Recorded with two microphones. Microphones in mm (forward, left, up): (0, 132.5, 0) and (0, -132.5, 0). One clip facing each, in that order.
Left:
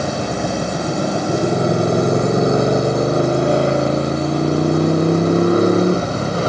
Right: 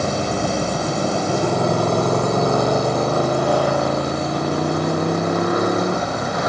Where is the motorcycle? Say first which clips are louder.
Even; 10° left (ahead or behind); by 6.5 s 30° left (ahead or behind).